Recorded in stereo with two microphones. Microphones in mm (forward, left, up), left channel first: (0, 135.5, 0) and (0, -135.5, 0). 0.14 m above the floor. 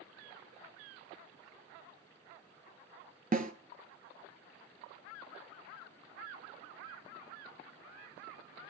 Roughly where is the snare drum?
Right.